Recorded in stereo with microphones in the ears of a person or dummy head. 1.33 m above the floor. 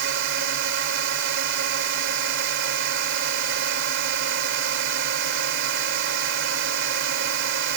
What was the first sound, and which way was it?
A drone, 65° right (ahead or behind).